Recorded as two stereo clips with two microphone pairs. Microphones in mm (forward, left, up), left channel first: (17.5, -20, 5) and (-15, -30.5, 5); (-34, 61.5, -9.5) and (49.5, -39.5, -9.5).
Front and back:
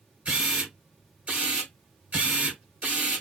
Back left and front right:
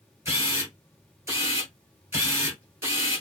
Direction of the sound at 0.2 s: 115° right.